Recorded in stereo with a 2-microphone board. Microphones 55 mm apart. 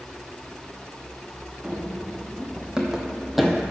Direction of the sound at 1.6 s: 20° right (ahead or behind).